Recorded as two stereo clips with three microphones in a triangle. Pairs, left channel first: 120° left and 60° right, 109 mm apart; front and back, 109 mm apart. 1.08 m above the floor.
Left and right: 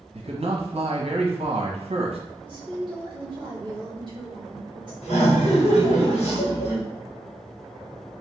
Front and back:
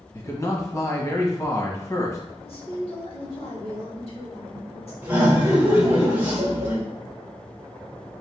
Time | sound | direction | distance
0.1 | a man speaking | 60° right | 1.1 m
2.5 | a woman speaking | 15° right | 1.9 m
5.0 | laughter | 110° left | 1.8 m